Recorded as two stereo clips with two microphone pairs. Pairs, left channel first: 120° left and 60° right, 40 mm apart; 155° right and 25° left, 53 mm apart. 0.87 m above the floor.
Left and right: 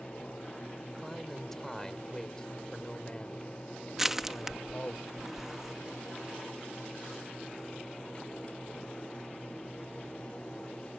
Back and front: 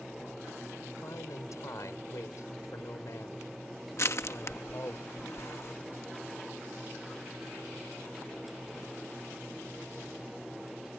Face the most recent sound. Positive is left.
turn(degrees=-140)